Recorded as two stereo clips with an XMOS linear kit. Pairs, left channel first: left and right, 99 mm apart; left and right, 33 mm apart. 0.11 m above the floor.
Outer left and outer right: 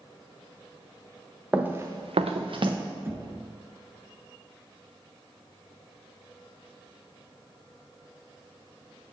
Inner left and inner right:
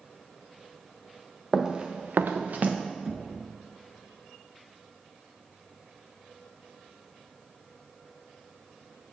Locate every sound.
1.5 s running footsteps: 10° right (ahead or behind), 1.1 m; by 2.8 s 50° right (ahead or behind), 1.2 m
3.0 s knocking: 25° right (ahead or behind), 0.8 m